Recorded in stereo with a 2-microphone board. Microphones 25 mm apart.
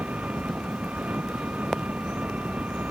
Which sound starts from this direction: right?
An engine running, at 0.0 s.